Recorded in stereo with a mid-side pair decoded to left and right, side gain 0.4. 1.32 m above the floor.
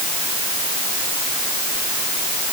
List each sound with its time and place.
Only background noise.